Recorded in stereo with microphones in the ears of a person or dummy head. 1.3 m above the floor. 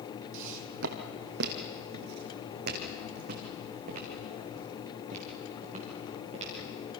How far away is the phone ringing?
I don't hear a phone ringing.